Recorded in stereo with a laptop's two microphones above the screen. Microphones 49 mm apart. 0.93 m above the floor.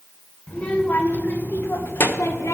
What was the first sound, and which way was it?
A child speaking, 25° left (ahead or behind).